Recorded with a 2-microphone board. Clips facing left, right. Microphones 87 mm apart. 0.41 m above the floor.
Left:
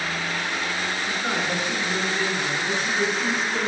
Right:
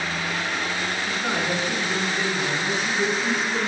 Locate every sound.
1.1 s a man speaking: 10° right (ahead or behind), 2 m